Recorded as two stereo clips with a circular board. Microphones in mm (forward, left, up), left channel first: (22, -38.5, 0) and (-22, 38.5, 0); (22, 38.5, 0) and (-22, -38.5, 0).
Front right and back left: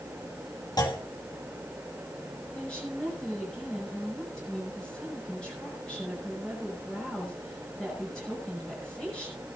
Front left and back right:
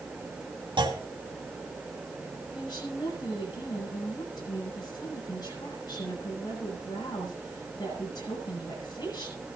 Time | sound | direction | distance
0.8 | a clunk | 100° right | 2.5 m
2.5 | a woman speaking | 20° left | 8 m